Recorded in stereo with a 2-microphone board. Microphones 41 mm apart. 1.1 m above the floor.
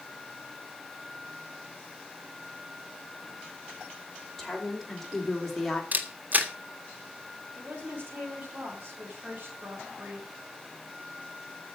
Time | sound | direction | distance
4.4 | a woman speaking | 5° left (ahead or behind) | 4.5 m
5.9 | a camera shutter | 40° right (ahead or behind) | 1.7 m
7.5 | a woman speaking | 45° right (ahead or behind) | 6.5 m